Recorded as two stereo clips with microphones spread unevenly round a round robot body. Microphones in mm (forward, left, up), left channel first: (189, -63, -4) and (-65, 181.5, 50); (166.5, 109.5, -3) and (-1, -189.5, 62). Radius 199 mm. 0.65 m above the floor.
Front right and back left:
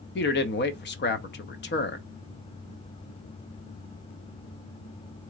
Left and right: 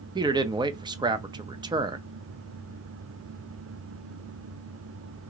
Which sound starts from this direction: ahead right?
A man speaking, at 0.1 s.